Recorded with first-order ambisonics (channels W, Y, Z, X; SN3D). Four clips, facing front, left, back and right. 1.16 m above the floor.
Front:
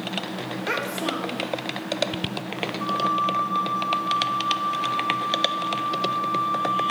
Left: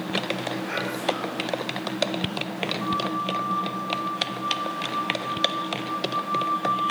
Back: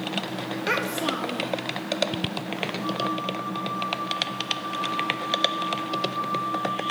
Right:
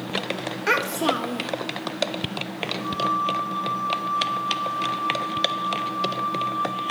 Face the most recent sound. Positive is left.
turn(degrees=-20)